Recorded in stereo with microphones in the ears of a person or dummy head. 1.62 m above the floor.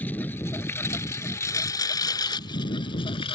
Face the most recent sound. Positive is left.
turn(degrees=30)  # may be behind; listen again after turning